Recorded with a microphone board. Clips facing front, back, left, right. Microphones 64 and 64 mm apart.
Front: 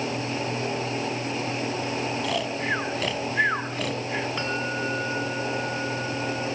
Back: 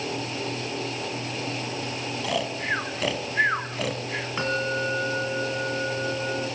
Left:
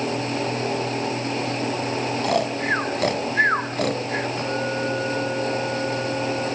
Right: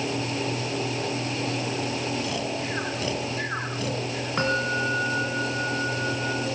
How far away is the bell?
About 4 m.